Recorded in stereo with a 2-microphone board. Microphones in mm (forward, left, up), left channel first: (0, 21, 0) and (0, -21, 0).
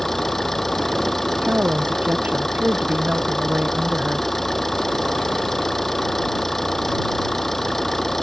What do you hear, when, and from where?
0.0 s an engine running: 5° left (ahead or behind)
1.4 s a woman speaking: 45° right (ahead or behind)